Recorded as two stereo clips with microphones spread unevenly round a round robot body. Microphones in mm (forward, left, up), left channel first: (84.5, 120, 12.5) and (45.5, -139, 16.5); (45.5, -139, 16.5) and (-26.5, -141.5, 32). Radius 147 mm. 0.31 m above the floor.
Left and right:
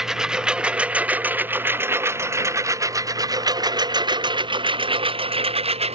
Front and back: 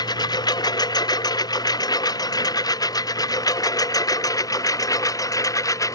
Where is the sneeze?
I don't hear a sneeze.